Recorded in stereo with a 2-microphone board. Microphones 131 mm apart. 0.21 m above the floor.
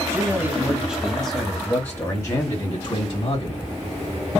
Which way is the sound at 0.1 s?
25° right (ahead or behind).